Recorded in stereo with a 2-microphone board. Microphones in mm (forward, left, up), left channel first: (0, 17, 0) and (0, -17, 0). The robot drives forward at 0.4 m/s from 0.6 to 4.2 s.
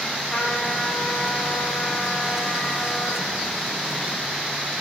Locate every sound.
0.3 s a trumpet: 45° left (ahead or behind), 7.5 m; by 3.4 s 55° left (ahead or behind), 7 m